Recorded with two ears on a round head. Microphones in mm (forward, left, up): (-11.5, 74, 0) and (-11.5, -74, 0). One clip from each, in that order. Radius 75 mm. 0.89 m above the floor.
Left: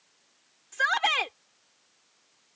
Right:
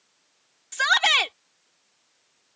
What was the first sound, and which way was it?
A shout, 60° right (ahead or behind).